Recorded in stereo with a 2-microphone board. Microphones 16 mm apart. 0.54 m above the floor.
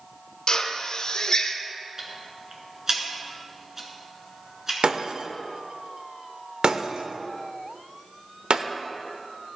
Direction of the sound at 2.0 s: 30° right (ahead or behind).